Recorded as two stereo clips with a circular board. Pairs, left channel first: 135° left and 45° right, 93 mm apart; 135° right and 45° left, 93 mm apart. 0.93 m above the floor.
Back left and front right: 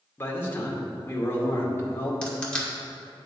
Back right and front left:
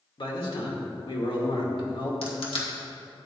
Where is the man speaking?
160° right, 2 m.